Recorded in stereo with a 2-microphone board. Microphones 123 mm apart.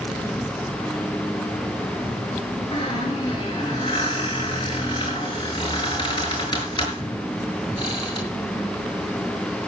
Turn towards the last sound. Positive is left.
turn(degrees=40)  # may be behind; listen again after turning